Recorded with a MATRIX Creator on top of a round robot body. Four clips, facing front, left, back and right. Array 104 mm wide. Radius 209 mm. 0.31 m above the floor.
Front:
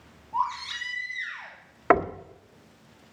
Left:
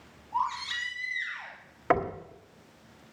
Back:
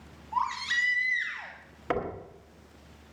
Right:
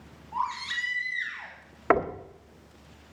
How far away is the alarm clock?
I don't hear an alarm clock.